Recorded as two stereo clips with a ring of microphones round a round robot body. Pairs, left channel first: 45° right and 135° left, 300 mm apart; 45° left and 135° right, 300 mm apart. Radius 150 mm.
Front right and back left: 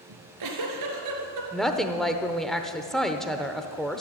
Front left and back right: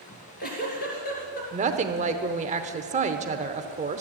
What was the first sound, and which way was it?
A giggle, 110° left.